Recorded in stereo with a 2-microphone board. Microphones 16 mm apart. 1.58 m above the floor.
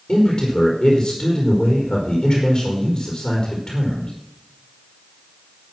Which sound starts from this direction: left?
A man speaking, at 0.1 s.